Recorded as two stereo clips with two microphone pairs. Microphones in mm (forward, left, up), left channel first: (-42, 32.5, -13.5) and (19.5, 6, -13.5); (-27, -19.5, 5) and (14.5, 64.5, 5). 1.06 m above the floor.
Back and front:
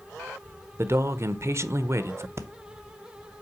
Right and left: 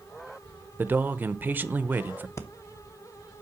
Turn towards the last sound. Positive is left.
turn(degrees=-60)